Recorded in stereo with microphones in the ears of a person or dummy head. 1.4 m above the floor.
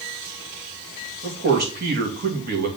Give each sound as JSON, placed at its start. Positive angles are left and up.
{"t": 1.2, "sound": "a man speaking", "side_deg": -50, "distance_m": 2.5}